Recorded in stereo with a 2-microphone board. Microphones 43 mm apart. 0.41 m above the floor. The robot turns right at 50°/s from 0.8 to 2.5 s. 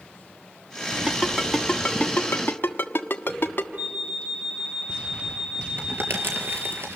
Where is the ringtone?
20° right (ahead or behind), 1.5 m; by 3.7 s 50° left (ahead or behind), 1.5 m.